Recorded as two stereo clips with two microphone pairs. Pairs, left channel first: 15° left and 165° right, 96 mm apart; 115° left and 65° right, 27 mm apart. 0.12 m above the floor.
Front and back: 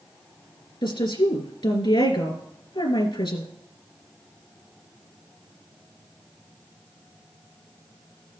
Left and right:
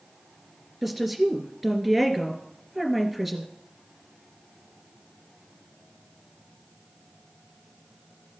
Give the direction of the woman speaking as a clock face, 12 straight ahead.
11 o'clock.